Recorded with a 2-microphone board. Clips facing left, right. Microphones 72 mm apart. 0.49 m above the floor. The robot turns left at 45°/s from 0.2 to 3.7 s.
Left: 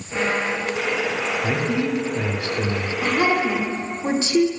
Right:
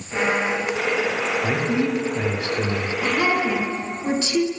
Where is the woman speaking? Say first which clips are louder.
Left 2 dB; 95° left, 1.1 m; by 4.5 s 60° left, 1.1 m.